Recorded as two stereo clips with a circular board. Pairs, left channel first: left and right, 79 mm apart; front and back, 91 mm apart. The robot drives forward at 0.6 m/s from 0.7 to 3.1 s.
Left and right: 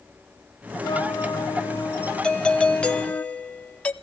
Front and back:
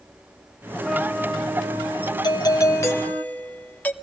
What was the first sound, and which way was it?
A flute, 90° left.